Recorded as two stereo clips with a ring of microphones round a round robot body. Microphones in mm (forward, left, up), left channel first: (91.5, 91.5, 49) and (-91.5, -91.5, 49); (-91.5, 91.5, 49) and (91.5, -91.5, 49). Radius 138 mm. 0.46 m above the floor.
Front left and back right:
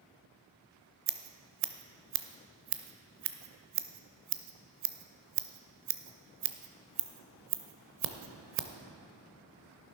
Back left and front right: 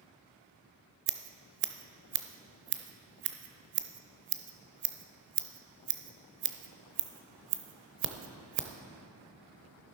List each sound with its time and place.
1.1 s scissors: 90° right, 0.8 m